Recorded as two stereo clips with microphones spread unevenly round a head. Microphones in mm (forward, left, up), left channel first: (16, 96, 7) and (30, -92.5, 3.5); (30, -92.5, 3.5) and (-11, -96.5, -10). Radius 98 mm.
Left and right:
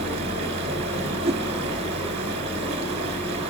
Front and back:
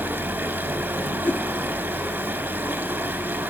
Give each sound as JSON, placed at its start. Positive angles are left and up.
{"t": 0.0, "sound": "running water", "azimuth_deg": -145, "distance_m": 3.5}
{"t": 1.2, "sound": "a whoosh", "azimuth_deg": -40, "distance_m": 0.7}